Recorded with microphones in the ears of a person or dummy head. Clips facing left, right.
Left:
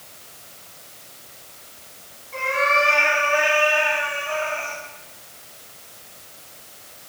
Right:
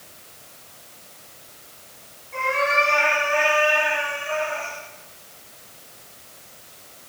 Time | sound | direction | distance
2.3 | a cat meowing | centre (ahead or behind) | 6 m